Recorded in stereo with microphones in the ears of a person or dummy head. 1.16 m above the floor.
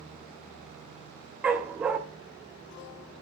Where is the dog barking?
5° right (ahead or behind), 0.6 m.